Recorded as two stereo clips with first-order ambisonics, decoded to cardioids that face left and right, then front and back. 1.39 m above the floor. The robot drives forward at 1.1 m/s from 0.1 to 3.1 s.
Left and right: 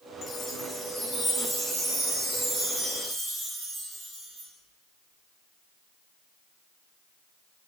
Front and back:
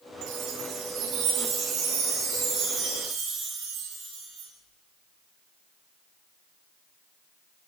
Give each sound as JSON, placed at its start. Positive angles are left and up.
{"t": 0.2, "sound": "a chime", "azimuth_deg": 155, "distance_m": 1.0}